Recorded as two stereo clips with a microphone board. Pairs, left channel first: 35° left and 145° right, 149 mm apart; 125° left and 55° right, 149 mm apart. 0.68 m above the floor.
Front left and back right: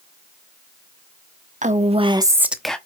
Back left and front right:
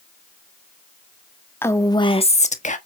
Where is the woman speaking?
165° right, 1.3 m; by 2.8 s 115° left, 1.2 m.